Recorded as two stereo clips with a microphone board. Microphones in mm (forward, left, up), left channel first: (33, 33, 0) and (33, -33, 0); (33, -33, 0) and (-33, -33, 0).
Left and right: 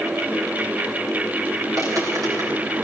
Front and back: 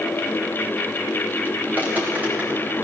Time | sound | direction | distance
1.7 | footsteps | 115° right | 10 m